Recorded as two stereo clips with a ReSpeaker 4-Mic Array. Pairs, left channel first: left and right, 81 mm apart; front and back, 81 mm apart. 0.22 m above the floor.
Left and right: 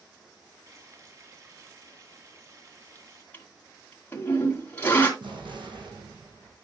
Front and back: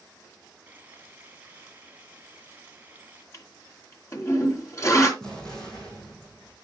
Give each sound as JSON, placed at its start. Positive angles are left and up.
{"t": 0.7, "sound": "frying", "azimuth_deg": -120, "distance_m": 1.7}
{"t": 3.3, "sound": "a toilet flushing", "azimuth_deg": 30, "distance_m": 2.5}
{"t": 5.2, "sound": "an explosion", "azimuth_deg": -85, "distance_m": 4.0}